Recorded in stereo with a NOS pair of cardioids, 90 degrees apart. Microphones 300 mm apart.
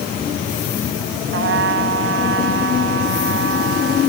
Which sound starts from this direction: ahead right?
A trumpet, at 1.3 s.